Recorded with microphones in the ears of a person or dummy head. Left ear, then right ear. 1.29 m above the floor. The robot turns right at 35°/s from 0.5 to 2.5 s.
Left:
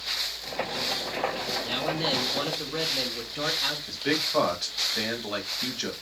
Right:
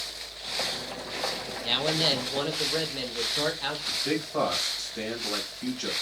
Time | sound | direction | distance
1.6 | a man speaking | 40° right | 1.0 m
3.9 | a man speaking | 25° left (ahead or behind) | 1.3 m